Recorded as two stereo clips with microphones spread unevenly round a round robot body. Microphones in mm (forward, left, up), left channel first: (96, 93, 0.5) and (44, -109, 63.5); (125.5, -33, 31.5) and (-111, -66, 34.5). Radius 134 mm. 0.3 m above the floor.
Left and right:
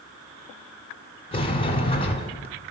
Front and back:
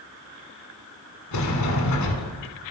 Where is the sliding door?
15° left, 1.2 m.